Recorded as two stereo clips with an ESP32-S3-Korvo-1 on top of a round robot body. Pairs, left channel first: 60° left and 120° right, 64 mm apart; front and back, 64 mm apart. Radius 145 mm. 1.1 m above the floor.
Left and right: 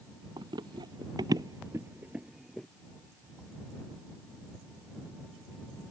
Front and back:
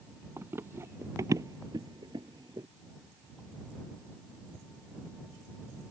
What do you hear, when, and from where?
0.4 s running footsteps: 120° right; by 2.7 s 145° left